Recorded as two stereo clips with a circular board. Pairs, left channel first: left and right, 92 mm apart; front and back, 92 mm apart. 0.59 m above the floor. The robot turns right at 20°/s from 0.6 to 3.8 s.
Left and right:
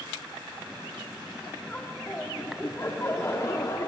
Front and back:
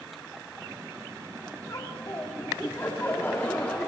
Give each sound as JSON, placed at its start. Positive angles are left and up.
{"t": 1.7, "sound": "laughter", "azimuth_deg": 25, "distance_m": 1.5}